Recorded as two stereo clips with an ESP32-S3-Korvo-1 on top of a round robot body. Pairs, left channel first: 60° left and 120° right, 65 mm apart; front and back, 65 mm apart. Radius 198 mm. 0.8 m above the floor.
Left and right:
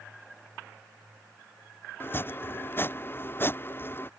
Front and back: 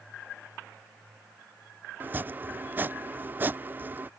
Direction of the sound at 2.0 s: 120° left.